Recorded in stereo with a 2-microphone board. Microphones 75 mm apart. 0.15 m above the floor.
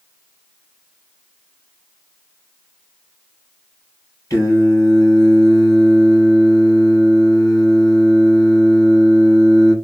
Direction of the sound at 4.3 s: 45° left (ahead or behind).